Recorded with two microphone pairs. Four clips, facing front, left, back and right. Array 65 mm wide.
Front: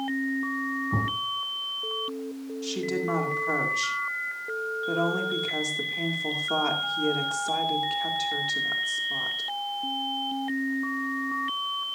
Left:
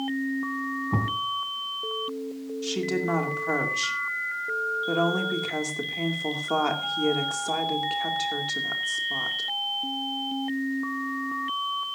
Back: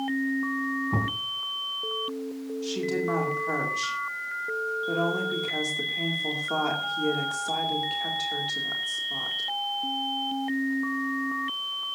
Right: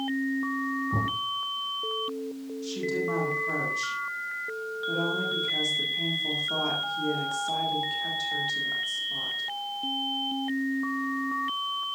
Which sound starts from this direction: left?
A woman speaking, at 2.6 s.